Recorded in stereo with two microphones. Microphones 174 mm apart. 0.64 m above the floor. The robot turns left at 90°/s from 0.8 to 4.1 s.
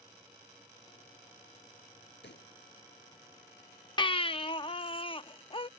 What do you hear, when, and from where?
2.2 s a pop: 85° left; by 2.5 s 65° left (ahead or behind)
4.0 s a baby crying: 25° left (ahead or behind); by 5.7 s 30° left (ahead or behind)